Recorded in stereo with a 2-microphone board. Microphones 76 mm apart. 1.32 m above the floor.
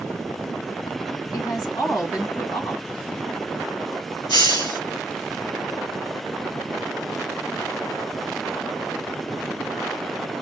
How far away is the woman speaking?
About 1.7 m.